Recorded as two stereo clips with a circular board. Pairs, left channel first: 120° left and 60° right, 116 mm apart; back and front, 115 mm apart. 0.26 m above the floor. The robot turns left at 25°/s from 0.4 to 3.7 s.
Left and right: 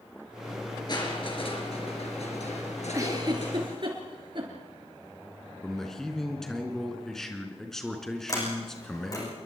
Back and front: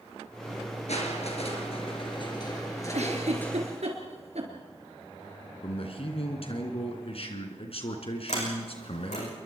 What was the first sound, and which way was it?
Crushing, 170° left.